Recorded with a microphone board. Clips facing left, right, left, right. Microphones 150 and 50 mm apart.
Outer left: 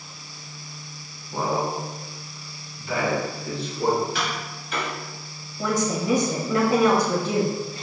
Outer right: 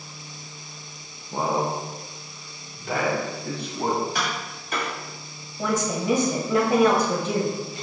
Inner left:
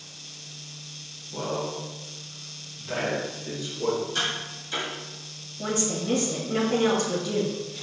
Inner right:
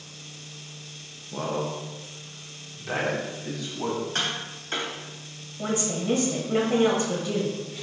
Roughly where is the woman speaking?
Centre.